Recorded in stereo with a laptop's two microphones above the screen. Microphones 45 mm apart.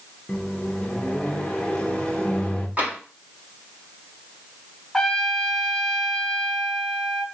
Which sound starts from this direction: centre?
A trumpet, at 4.9 s.